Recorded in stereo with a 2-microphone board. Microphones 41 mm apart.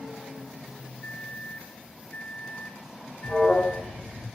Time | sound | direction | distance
1.0 | a microwave | 30° left (ahead or behind) | 0.5 m
3.2 | an alarm | 35° left (ahead or behind) | 1.5 m